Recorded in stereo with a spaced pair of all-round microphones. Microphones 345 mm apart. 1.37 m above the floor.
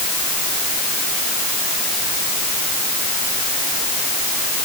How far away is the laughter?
No laughter in this recording.